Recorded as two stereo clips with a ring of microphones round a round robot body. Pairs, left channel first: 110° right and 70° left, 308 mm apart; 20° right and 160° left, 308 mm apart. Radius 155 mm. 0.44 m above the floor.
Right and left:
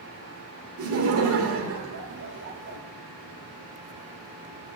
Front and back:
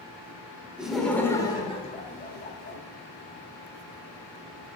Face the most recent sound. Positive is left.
turn(degrees=20)